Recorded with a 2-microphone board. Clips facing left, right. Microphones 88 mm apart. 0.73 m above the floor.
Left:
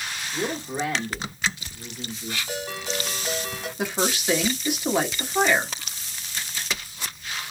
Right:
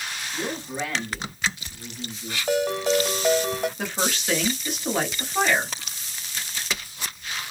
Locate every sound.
0.3 s a man speaking: 15° left (ahead or behind), 1.1 m
2.5 s a ringtone: 65° right (ahead or behind), 1.6 m
3.8 s a woman speaking: 10° left (ahead or behind), 1.0 m